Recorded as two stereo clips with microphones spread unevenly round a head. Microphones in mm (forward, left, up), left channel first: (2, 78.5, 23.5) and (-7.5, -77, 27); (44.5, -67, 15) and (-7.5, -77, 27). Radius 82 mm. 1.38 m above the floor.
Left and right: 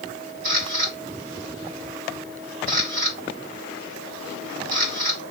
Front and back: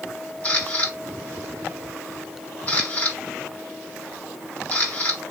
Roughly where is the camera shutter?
Ahead right.